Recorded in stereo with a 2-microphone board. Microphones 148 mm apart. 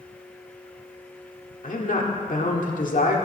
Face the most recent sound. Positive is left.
turn(degrees=65)  # may be behind; listen again after turning